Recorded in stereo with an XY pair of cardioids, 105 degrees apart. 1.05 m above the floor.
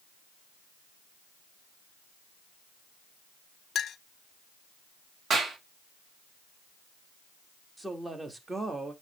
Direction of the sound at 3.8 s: 55° left.